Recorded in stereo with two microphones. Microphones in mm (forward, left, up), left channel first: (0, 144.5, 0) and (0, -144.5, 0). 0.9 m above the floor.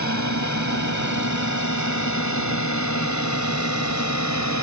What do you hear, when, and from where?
0.0 s a drone: 75° left (ahead or behind)